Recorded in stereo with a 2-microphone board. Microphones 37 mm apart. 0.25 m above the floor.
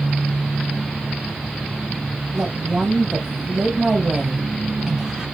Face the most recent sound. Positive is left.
turn(degrees=-15)  # may be behind; listen again after turning